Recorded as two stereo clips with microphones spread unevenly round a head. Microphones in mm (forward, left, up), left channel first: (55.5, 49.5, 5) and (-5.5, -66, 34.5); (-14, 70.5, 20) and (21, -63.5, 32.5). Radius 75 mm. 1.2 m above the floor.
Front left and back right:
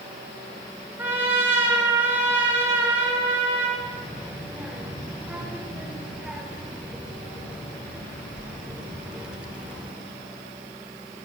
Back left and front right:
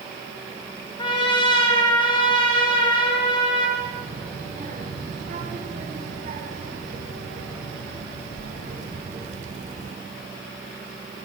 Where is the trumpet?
165° left, 4.5 m.